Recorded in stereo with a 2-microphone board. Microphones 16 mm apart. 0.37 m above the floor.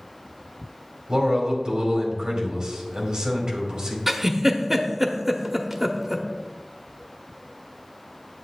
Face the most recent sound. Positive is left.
turn(degrees=-15)  # may be behind; listen again after turning